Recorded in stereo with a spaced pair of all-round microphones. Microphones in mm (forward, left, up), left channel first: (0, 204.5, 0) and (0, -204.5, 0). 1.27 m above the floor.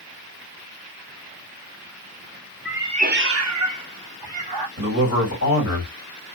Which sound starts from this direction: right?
A man speaking, at 4.8 s.